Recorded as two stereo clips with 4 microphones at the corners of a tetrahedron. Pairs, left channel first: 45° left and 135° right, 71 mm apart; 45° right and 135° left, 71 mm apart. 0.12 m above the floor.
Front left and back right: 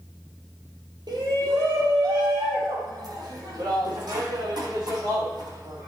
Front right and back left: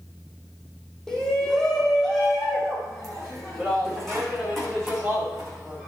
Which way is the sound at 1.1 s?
125° right.